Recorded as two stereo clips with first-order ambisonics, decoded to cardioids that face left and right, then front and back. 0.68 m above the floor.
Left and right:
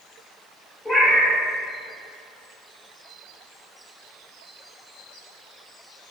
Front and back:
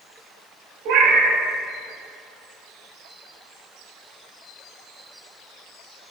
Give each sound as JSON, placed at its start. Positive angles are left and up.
{"t": 0.8, "sound": "a cat meowing", "azimuth_deg": 165, "distance_m": 0.7}